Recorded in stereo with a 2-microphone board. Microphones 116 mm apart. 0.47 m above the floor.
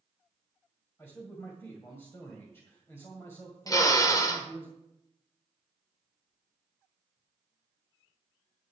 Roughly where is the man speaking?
Left.